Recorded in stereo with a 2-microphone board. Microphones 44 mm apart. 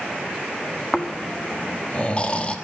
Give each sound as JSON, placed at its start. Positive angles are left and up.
{"t": 0.9, "sound": "snoring", "side_deg": 30, "distance_m": 1.4}